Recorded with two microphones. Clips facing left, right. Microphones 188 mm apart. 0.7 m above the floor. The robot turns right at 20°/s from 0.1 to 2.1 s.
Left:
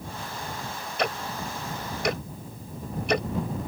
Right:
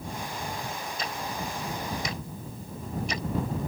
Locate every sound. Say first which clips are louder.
1.0 s ticking: left 7 dB; 75° left (ahead or behind); by 3.3 s 70° left (ahead or behind)